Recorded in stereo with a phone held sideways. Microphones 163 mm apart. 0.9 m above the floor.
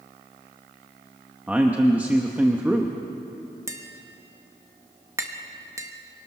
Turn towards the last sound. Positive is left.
turn(degrees=-15)  # may be behind; listen again after turning